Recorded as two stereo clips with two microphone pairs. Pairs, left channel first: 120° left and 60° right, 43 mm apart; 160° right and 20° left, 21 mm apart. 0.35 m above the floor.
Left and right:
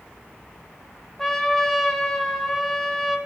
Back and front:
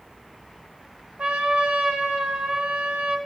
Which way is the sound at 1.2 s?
40° left.